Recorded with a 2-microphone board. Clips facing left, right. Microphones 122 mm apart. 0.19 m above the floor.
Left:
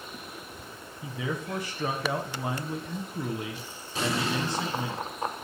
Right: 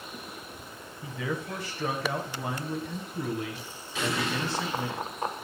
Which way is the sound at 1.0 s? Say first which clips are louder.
Even; 15° left (ahead or behind).